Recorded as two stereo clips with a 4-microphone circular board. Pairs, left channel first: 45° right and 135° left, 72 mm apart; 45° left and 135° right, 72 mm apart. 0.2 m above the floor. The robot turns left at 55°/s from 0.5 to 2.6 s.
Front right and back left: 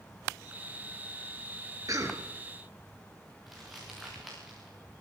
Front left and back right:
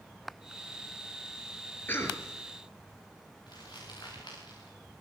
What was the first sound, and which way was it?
A cough, 105° left.